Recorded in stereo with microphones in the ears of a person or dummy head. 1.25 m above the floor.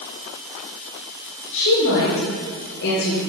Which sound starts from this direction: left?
A woman speaking, at 1.5 s.